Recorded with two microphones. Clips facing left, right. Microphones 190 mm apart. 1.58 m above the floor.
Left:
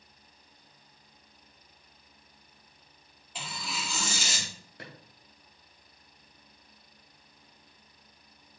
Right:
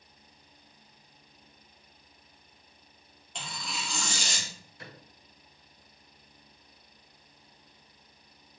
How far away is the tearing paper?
About 3 m.